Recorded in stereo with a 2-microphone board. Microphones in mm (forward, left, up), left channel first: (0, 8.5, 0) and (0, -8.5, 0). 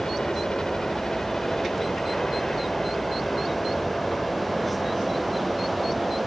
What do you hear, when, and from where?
0.0 s a helicopter: 60° left (ahead or behind); by 6.3 s 45° left (ahead or behind)